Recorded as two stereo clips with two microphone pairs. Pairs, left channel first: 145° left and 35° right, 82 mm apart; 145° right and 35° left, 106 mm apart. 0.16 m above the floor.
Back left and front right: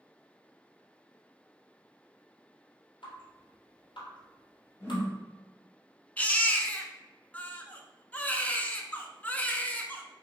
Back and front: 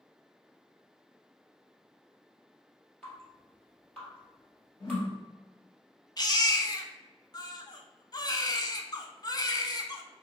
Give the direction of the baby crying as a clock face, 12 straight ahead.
5 o'clock.